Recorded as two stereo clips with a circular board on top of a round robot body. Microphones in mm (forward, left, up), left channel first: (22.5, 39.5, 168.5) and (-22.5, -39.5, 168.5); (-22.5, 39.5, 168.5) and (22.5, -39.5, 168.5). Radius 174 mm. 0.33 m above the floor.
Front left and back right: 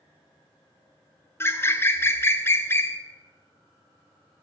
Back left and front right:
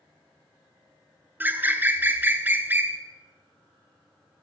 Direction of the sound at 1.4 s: 5° left.